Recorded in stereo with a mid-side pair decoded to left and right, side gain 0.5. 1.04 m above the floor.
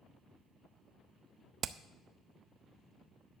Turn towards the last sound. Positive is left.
turn(degrees=-50)